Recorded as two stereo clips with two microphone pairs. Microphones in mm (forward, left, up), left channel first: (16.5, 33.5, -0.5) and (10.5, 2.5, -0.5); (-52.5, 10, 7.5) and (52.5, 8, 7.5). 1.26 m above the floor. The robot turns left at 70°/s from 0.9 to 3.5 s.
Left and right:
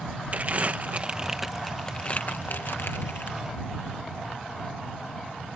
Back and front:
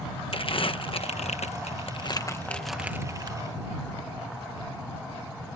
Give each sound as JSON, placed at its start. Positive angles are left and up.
{"t": 0.3, "sound": "crumpling", "azimuth_deg": -145}